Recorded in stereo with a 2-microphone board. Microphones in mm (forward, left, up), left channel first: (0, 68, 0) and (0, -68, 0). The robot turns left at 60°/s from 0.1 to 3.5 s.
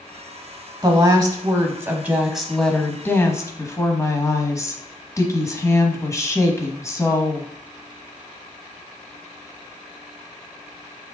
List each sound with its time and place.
0.8 s a woman speaking: 25° right (ahead or behind), 1.1 m; by 7.5 s 25° left (ahead or behind), 1.1 m